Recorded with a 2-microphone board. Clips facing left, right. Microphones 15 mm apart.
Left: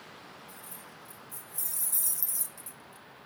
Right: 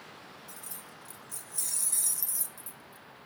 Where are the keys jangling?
65° right (ahead or behind), 1.5 m; by 3.3 s 50° left (ahead or behind), 0.9 m.